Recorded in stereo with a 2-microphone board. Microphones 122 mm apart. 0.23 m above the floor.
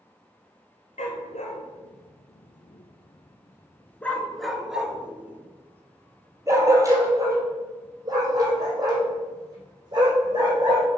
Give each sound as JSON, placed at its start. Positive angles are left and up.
{"t": 1.0, "sound": "a dog barking", "side_deg": 70, "distance_m": 1.3}